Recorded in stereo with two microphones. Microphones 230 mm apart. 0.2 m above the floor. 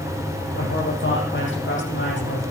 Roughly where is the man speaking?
Left.